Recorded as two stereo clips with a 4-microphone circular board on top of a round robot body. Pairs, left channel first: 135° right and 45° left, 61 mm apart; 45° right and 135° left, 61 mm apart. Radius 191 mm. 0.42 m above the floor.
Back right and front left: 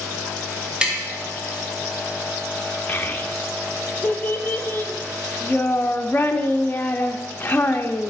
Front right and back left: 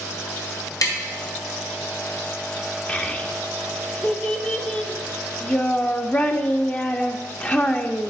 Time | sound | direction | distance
0.8 | tapping | 25° right | 1.8 m
2.9 | a child speaking | 95° right | 1.0 m